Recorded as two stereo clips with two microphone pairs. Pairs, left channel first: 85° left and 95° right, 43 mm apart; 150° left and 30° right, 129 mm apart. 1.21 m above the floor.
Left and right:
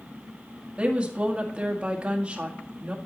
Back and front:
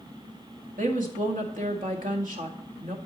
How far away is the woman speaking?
About 1.9 m.